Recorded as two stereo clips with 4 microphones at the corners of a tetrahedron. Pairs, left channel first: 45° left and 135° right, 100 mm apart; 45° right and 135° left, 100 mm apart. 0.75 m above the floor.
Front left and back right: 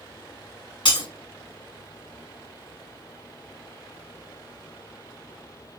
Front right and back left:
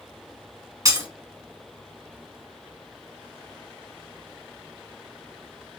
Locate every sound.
0.8 s breaking glass: 80° left, 2 m